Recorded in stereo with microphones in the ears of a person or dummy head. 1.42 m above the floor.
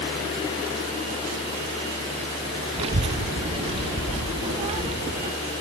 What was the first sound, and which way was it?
A child speaking, 25° right (ahead or behind).